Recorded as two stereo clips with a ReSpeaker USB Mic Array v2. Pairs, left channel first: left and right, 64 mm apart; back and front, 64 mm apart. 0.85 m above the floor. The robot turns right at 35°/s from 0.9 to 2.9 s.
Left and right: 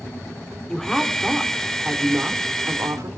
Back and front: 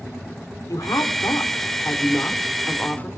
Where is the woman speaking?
170° left, 3 m; by 3.1 s 120° right, 3 m.